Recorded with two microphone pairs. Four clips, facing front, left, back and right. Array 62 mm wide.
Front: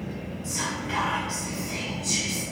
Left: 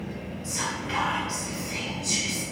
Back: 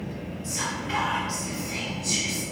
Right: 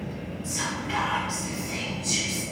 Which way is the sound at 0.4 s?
100° left.